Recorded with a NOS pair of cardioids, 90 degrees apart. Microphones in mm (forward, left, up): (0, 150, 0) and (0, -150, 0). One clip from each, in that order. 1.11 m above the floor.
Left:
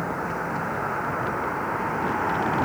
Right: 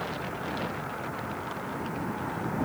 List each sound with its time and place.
0.0 s a vehicle: 70° left; by 2.7 s 75° left